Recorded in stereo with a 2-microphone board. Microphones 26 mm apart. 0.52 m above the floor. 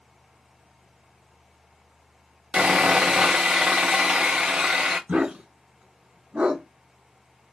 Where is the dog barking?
45° right (ahead or behind), 1.4 m.